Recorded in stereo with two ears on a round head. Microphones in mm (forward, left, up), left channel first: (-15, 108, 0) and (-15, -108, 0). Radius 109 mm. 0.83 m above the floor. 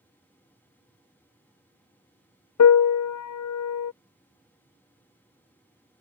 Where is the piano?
70° left (ahead or behind).